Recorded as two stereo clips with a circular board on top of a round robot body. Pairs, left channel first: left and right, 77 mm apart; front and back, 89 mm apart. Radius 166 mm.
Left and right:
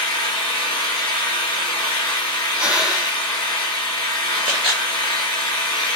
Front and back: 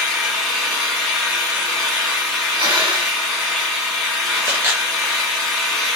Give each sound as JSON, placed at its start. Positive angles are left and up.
{"t": 0.0, "sound": "an engine running", "azimuth_deg": 90, "distance_m": 1.6}
{"t": 2.6, "sound": "breathing", "azimuth_deg": -165, "distance_m": 1.7}
{"t": 4.5, "sound": "a camera shutter", "azimuth_deg": -115, "distance_m": 0.7}